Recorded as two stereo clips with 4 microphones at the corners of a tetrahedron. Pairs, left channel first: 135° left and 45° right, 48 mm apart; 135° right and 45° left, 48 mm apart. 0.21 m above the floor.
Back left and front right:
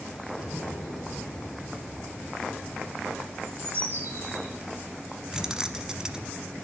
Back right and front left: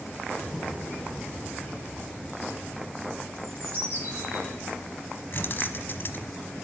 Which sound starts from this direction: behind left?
An explosion, at 0.4 s.